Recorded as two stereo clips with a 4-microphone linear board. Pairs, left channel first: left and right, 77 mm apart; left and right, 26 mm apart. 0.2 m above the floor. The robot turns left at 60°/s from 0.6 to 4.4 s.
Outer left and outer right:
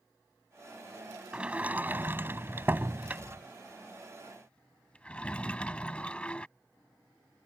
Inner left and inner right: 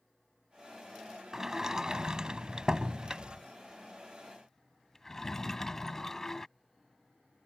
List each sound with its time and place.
1.3 s a sliding door: 15° right (ahead or behind); by 6.5 s 15° left (ahead or behind)